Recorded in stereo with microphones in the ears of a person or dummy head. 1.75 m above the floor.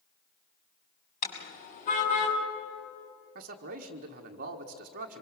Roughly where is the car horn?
Left.